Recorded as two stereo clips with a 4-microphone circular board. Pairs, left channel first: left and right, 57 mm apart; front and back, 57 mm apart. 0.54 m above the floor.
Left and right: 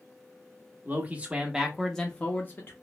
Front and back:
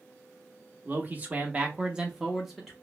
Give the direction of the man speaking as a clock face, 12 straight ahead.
4 o'clock.